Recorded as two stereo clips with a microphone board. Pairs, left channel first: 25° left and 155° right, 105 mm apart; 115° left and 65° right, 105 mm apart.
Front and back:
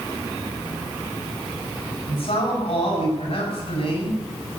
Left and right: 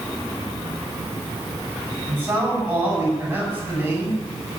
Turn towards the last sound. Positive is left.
turn(degrees=5)